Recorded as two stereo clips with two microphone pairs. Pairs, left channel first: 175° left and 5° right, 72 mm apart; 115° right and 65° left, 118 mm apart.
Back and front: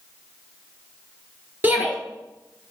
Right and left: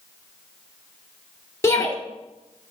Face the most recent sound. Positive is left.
turn(degrees=-60)